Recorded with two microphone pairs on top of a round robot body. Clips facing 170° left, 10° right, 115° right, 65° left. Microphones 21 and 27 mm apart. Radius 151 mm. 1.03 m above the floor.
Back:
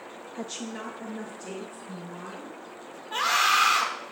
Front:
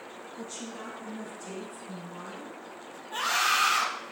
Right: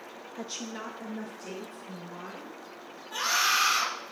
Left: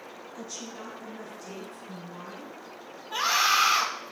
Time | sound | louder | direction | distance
0.3 | a woman speaking | back 5 dB, right 3 dB | 160° right | 0.5 m
3.1 | a scream | back 4 dB, left 3 dB | 140° left | 2 m